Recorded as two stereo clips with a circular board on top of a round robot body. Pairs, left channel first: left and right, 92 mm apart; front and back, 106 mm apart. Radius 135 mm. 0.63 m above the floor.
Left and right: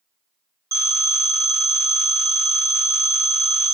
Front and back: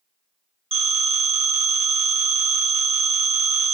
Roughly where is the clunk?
No clunk in this recording.